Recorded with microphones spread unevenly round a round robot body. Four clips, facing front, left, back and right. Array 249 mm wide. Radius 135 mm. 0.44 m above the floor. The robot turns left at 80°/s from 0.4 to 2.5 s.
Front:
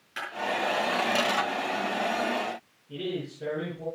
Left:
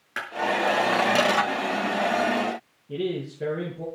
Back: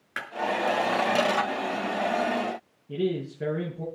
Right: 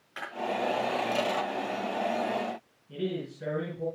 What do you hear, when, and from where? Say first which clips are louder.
0.2 s a clap: left 6 dB, even; 130° left, 7 m
2.9 s a man speaking: left 5 dB, back 5 dB; 155° left, 9.5 m